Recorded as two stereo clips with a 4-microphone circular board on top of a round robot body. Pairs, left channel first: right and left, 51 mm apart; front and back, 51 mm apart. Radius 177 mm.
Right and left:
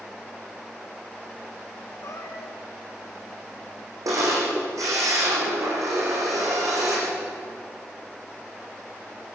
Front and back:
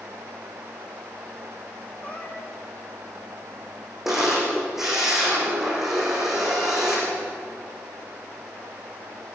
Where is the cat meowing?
65° right, 3 m.